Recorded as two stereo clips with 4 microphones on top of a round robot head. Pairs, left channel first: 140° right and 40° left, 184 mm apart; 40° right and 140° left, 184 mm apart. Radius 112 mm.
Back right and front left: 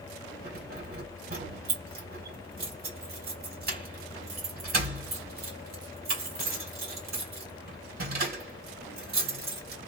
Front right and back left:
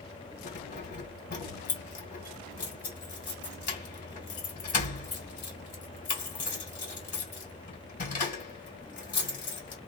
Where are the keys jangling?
5° left, 2.5 m.